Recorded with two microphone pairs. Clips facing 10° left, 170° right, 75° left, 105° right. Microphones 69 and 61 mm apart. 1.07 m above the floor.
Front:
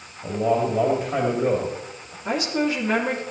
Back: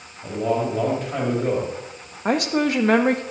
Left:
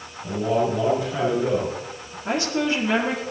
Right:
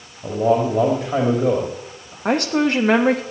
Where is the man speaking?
75° right, 2 m.